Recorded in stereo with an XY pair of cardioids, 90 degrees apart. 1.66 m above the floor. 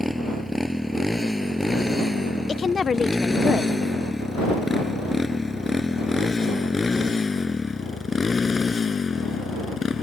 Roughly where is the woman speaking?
Ahead left.